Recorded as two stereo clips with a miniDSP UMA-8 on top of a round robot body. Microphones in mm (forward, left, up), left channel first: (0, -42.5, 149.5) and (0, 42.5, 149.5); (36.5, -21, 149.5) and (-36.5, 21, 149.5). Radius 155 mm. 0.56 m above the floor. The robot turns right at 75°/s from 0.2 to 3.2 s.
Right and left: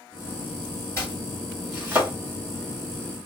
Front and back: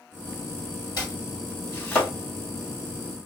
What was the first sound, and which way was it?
Chopping, 45° right.